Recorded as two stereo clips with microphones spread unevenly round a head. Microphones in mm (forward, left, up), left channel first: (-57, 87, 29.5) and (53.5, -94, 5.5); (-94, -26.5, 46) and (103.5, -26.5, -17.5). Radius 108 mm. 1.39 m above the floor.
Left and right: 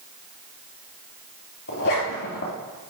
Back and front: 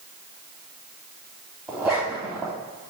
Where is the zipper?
95° left, 3 m.